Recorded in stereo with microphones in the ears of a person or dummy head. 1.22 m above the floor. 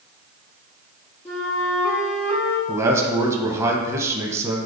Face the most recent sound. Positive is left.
turn(degrees=-15)  # may be behind; listen again after turning